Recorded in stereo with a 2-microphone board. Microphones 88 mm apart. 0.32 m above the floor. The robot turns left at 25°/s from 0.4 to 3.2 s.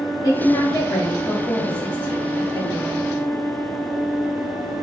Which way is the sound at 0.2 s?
70° left.